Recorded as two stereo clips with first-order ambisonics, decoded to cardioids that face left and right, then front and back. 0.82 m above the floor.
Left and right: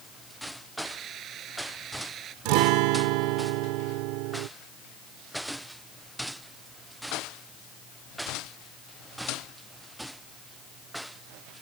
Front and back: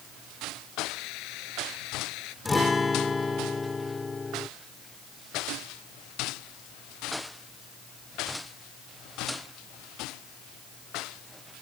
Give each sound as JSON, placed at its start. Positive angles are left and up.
{"t": 0.8, "sound": "a hiss", "azimuth_deg": -30}
{"t": 2.5, "sound": "a guitar", "azimuth_deg": -80}